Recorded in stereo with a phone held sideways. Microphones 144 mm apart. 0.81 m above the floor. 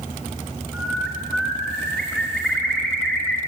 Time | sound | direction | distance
0.7 | a bird | 10° left (ahead or behind) | 3.5 m